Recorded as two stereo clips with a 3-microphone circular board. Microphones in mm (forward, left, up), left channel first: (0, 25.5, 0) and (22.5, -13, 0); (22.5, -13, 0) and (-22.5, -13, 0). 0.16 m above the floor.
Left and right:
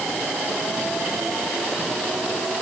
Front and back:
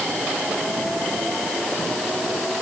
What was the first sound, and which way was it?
Only background noise.